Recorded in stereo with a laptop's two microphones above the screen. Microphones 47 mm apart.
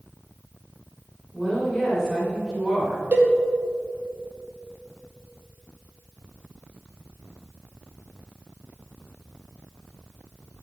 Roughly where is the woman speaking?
Centre.